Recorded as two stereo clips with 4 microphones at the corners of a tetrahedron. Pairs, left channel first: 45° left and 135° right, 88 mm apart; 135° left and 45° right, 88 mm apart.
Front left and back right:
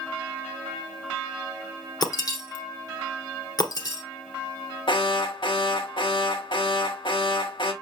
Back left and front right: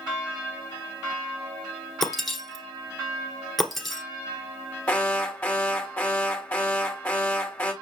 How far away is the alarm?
About 1.2 m.